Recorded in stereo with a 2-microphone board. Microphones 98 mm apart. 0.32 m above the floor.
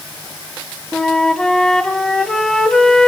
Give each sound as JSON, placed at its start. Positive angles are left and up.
{"t": 0.9, "sound": "a flute", "side_deg": 5, "distance_m": 1.0}